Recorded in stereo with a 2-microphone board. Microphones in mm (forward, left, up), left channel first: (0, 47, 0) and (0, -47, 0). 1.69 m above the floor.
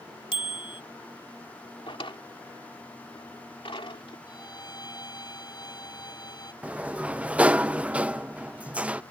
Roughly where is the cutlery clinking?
I don't hear cutlery clinking.